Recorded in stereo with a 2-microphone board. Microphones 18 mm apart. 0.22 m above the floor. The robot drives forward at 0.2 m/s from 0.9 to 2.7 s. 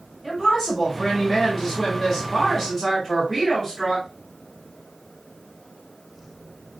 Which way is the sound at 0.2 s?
35° left (ahead or behind).